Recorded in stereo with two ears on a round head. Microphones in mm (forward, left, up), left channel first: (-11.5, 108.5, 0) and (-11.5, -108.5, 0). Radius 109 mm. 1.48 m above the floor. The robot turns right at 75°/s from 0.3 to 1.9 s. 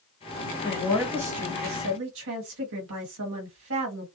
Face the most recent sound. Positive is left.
turn(degrees=-115)